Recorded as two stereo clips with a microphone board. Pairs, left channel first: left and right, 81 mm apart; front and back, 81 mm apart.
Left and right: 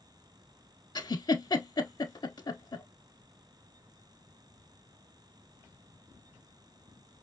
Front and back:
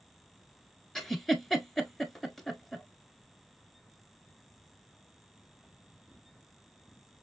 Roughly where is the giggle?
Left.